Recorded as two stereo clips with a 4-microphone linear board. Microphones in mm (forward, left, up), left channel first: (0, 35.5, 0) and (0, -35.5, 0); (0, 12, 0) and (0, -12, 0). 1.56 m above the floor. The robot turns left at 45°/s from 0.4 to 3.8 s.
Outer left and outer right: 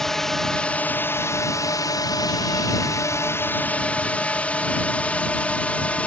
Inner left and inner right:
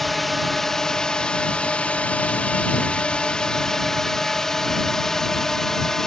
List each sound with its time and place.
0.0 s a drone: 175° left; by 6.1 s 20° left